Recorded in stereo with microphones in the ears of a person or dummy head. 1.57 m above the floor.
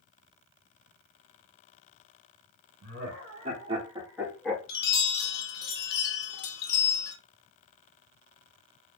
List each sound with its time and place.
2.8 s laughter: 55° right (ahead or behind), 1.2 m; by 4.6 s 10° left (ahead or behind), 0.9 m
4.7 s a chime: 65° left (ahead or behind), 0.9 m